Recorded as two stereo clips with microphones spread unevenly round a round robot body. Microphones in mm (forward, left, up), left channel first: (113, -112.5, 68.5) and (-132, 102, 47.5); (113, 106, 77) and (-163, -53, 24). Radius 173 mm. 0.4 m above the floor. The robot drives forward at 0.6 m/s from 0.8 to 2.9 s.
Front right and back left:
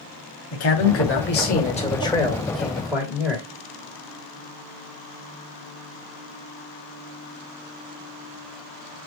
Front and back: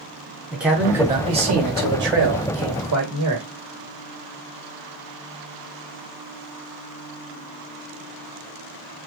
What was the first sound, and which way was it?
A man speaking, 75° right.